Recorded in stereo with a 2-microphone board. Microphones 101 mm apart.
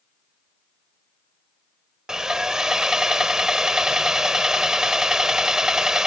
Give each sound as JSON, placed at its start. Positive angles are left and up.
{"t": 2.1, "sound": "sawing", "side_deg": -5}